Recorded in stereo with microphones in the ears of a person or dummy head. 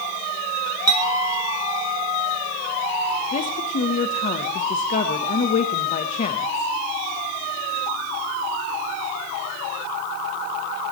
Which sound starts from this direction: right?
A clink, at 0.9 s.